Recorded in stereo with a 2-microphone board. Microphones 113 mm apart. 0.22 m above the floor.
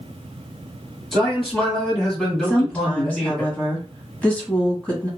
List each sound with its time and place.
1.1 s a man speaking: 5° left (ahead or behind), 1.7 m
2.4 s a woman speaking: 10° left (ahead or behind), 1.2 m